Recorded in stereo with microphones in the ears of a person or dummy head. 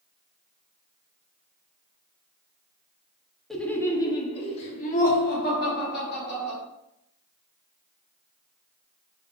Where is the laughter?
Centre (ahead or behind), 0.7 m; by 6.6 s 60° left (ahead or behind), 1.9 m.